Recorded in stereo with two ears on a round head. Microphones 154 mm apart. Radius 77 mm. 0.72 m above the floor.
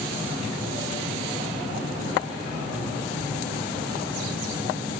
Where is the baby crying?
I don't hear a baby crying.